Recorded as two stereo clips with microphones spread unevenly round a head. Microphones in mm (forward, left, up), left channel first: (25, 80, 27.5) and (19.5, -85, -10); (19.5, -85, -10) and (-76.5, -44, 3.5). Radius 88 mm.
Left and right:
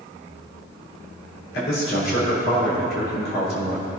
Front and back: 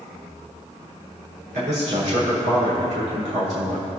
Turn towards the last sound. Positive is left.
turn(degrees=125)